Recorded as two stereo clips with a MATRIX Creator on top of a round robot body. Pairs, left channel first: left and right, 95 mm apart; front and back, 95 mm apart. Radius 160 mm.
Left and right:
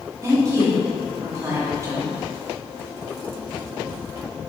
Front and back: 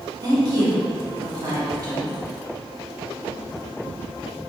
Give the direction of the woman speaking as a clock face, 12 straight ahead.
5 o'clock.